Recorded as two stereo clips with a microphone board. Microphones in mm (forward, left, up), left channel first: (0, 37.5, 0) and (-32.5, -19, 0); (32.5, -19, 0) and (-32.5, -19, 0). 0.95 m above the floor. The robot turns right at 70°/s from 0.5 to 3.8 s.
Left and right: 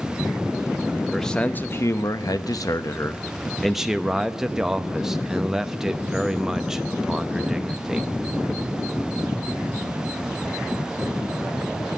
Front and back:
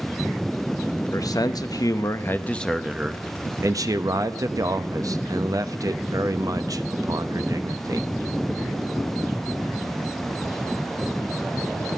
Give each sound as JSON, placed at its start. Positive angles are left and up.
{"t": 1.1, "sound": "a man speaking", "azimuth_deg": -30, "distance_m": 0.9}